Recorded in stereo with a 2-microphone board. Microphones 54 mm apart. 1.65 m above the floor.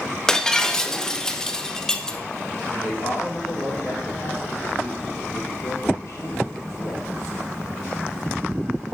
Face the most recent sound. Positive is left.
turn(degrees=75)  # may be behind; listen again after turning